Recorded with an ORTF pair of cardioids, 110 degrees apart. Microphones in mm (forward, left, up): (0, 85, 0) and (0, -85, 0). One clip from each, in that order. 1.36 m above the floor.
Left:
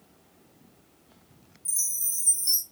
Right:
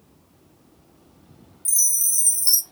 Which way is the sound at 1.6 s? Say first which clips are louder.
Right 9 dB; 50° right.